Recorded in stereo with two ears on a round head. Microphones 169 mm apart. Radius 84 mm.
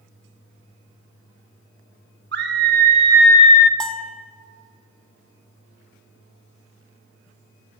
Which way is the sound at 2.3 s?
65° right (ahead or behind).